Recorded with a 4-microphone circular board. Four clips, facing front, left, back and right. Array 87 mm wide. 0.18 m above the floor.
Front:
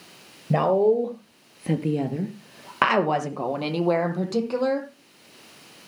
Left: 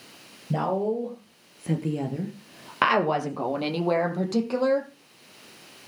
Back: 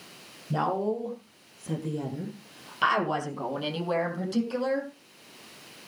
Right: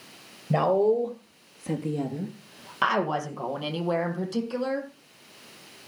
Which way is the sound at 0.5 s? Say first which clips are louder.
Right 4 dB, front 9 dB; 20° right.